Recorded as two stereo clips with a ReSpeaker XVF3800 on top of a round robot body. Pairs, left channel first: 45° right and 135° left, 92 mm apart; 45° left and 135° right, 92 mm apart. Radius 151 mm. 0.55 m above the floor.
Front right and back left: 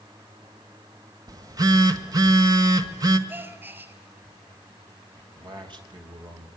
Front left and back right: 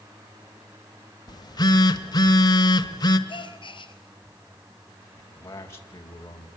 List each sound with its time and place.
1.3 s a phone buzzing: 90° left, 2.0 m
3.3 s a gasp: 70° left, 5 m
5.2 s a man speaking: 105° left, 4 m